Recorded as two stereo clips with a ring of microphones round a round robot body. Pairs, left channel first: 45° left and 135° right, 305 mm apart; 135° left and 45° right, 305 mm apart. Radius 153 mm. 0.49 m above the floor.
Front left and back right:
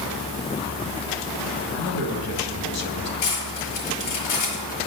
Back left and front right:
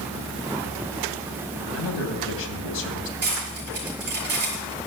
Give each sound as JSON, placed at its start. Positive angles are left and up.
{"t": 1.7, "sound": "a man speaking", "azimuth_deg": 85, "distance_m": 2.5}
{"t": 3.2, "sound": "cutlery clinking", "azimuth_deg": 15, "distance_m": 5.0}